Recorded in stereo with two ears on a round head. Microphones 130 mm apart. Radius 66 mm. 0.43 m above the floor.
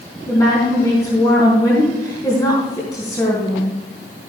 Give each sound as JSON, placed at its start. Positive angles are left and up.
{"t": 0.3, "sound": "a woman speaking", "side_deg": 25, "distance_m": 4.0}